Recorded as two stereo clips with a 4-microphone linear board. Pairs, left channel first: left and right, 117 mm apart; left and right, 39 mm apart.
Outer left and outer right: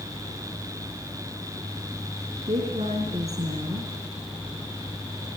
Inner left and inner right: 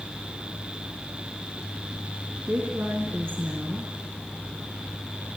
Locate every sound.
2.5 s a woman speaking: 75° right (ahead or behind), 4.5 m